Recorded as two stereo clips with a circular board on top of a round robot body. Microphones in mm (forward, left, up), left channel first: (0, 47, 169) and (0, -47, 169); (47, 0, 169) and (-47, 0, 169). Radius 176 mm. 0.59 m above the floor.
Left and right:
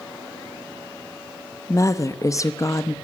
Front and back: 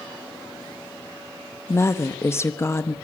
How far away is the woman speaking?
About 1.4 m.